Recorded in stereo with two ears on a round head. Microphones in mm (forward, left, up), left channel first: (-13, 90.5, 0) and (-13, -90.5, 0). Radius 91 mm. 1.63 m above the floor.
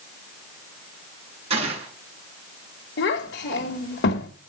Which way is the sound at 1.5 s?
30° right (ahead or behind).